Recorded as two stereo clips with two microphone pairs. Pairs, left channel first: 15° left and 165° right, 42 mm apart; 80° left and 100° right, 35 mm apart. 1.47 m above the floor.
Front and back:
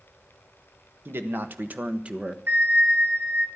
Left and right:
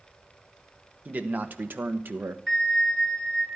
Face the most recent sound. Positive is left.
turn(degrees=165)